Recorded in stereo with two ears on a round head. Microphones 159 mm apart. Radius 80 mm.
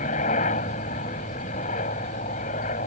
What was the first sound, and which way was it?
A helicopter, 40° left (ahead or behind).